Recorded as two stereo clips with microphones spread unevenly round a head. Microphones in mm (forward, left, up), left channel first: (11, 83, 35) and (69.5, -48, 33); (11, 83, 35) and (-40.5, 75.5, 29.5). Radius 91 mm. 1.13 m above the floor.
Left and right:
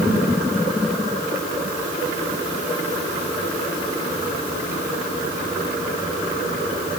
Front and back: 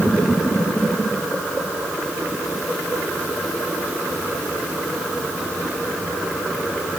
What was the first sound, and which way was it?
Only background noise.